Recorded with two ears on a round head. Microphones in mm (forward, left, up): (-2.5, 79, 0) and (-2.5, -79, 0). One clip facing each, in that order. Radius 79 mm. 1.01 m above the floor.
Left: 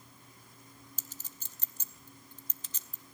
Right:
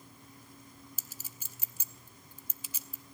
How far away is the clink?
About 0.8 m.